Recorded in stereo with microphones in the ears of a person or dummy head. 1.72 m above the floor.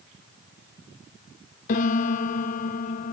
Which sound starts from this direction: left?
A piano, at 1.7 s.